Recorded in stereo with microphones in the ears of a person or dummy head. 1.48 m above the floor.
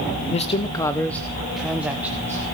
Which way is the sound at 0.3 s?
35° left (ahead or behind).